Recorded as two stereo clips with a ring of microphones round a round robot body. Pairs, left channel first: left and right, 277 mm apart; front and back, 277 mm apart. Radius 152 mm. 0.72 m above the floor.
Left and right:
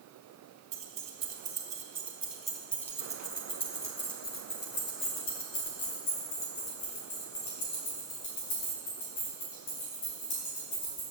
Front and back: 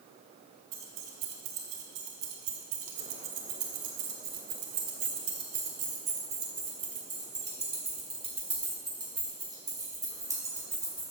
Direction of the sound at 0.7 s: 155° right.